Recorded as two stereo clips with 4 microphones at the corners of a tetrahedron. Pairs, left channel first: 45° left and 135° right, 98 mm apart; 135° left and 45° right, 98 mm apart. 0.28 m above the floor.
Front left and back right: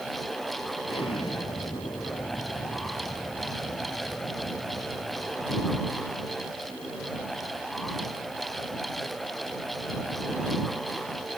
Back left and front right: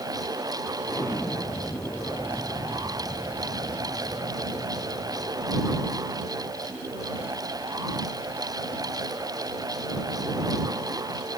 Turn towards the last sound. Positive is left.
turn(degrees=70)